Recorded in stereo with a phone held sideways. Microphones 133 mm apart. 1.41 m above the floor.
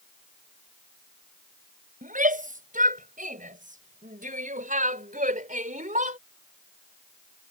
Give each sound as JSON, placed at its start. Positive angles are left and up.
{"t": 2.0, "sound": "a shout", "side_deg": -90}